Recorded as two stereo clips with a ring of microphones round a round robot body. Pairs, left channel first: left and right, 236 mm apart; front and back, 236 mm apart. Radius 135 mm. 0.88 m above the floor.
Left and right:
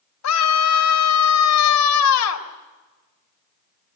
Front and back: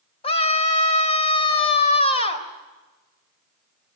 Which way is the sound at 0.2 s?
70° left.